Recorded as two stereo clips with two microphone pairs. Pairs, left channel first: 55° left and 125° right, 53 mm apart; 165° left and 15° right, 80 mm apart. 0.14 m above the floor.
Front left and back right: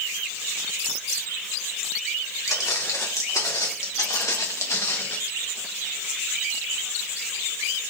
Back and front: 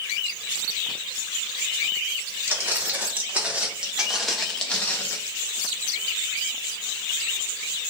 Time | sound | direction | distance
2.5 | footsteps | 45° left | 2.5 m